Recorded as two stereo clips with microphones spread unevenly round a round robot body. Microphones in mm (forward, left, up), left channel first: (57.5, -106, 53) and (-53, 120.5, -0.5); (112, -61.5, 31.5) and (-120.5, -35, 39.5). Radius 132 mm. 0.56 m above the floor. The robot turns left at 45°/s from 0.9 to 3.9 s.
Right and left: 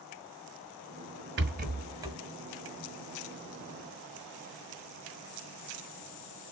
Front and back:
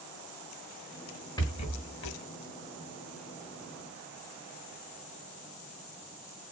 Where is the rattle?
70° left, 0.9 m; by 2.2 s 30° left, 0.9 m.